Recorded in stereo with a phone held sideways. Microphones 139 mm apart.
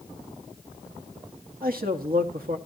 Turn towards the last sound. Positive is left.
turn(degrees=-80)